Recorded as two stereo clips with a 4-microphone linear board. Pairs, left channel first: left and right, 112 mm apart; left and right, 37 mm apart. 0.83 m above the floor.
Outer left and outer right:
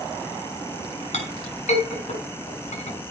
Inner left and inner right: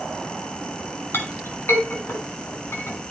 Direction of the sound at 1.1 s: 75° left (ahead or behind).